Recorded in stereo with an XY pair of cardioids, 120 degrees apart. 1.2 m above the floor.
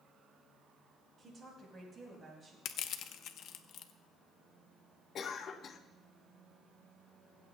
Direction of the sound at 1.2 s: 35° right.